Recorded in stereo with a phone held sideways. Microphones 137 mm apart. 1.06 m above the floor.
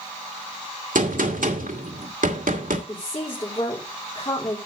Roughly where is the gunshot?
Right.